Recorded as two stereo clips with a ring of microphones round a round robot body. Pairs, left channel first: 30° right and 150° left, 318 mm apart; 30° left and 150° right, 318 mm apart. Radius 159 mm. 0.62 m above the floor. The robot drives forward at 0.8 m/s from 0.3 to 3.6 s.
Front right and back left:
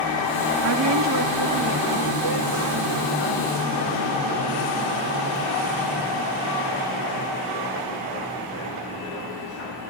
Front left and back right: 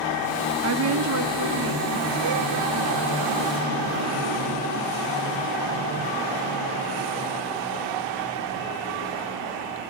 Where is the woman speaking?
Straight behind, 0.7 m.